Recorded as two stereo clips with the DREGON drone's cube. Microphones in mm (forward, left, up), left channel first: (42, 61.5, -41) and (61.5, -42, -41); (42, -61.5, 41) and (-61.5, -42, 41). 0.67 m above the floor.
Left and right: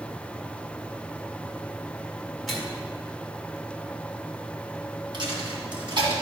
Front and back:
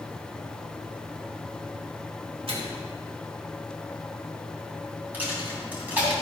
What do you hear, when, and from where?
2.5 s a microwave: 170° right, 1.8 m
5.1 s a dropped coin: 115° right, 2.5 m